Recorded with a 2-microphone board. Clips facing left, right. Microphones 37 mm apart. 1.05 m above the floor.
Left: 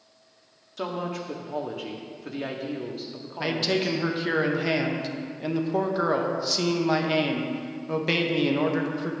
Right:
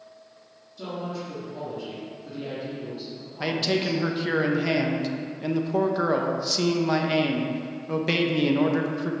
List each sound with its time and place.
0.8 s a woman speaking: 80° left, 1.6 m
3.4 s a man speaking: centre (ahead or behind), 0.9 m